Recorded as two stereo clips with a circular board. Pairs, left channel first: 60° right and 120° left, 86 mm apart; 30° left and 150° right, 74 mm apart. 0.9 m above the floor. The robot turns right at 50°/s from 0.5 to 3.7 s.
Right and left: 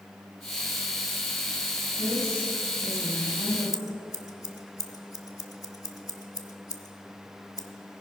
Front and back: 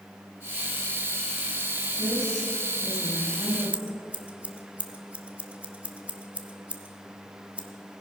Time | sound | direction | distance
2.0 | a woman speaking | 160° right | 6 m
3.7 | scissors | 85° right | 0.9 m